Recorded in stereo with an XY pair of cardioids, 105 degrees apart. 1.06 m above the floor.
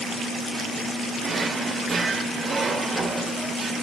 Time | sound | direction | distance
1.2 | a drawer | 35° right | 1.7 m